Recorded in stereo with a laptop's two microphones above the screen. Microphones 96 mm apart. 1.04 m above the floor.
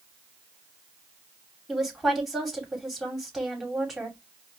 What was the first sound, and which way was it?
A woman speaking, centre (ahead or behind).